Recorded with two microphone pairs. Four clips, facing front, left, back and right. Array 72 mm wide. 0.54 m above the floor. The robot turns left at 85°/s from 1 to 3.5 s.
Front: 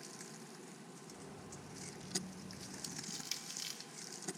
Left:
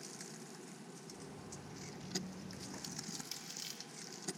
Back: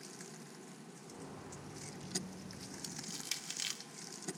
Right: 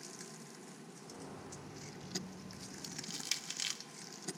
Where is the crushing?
75° right, 0.8 m; by 3.8 s 125° right, 0.8 m.